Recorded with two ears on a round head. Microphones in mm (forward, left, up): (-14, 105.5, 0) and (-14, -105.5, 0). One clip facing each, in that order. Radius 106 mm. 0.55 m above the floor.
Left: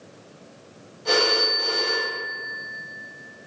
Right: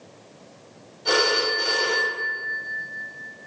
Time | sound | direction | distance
1.1 | a phone ringing | 15° right (ahead or behind) | 1.7 m